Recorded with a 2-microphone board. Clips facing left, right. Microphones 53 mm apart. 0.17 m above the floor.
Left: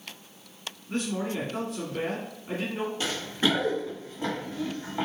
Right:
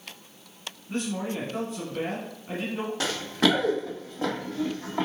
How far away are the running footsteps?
About 1.7 m.